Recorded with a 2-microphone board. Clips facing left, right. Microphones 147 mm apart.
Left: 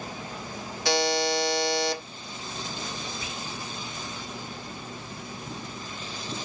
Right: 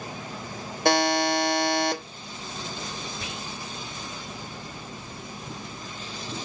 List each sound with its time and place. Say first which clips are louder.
0.8 s a buzzer: right 3 dB; 55° right (ahead or behind), 1.2 m
3.2 s whispering: right 1 dB; 65° right (ahead or behind), 1.7 m